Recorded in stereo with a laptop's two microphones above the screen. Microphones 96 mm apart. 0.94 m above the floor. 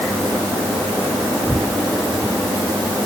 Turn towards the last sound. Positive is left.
No sound to turn to.